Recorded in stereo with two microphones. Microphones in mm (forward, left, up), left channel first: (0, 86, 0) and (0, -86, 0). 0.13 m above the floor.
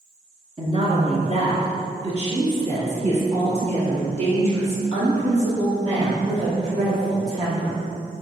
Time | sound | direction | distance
0.6 | a woman speaking | 35° right (ahead or behind) | 1.5 m